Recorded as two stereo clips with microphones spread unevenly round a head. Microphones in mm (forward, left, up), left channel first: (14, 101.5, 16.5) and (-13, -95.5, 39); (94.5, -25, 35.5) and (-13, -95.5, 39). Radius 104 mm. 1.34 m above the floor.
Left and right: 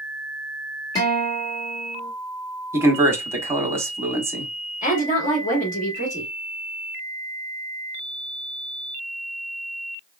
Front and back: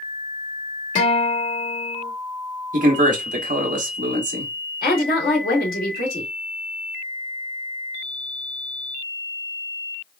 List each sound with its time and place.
0.9 s a guitar: 5° left, 2 m
2.7 s a man speaking: 175° right, 1.2 m
4.8 s a woman speaking: 25° left, 2 m